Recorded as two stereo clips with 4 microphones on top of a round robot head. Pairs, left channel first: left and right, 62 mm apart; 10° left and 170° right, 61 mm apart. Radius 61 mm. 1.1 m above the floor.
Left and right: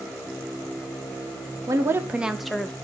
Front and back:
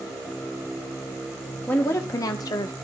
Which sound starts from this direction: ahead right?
A woman speaking, at 1.7 s.